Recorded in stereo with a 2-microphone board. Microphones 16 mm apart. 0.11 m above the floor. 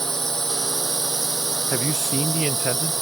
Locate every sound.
0.0 s a drone: 25° left (ahead or behind)
1.7 s a man speaking: 35° right (ahead or behind)